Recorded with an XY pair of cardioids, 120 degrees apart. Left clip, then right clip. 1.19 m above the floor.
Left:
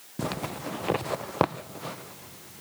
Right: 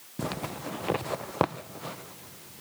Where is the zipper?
10° left.